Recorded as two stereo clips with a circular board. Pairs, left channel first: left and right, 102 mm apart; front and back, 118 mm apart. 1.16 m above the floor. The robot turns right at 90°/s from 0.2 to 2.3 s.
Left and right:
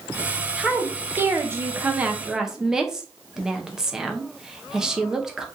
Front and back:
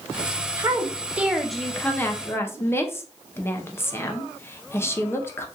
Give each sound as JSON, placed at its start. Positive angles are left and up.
{"t": 0.6, "sound": "a woman speaking", "azimuth_deg": -170, "distance_m": 0.5}